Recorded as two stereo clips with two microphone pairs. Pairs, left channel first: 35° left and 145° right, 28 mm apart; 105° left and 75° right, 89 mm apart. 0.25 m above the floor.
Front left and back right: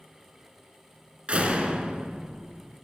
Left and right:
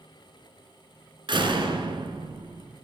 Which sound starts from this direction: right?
A door slam, at 1.3 s.